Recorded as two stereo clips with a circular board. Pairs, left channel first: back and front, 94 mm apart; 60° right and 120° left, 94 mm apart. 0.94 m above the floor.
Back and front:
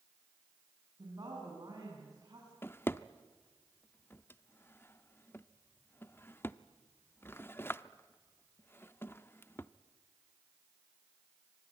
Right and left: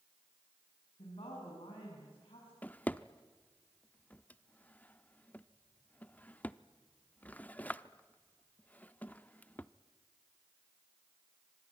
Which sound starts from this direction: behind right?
A drawer, at 2.6 s.